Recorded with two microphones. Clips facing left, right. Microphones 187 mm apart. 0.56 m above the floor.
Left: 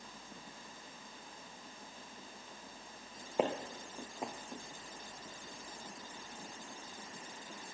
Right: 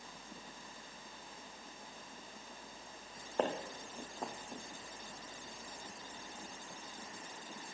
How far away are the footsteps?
About 1.6 m.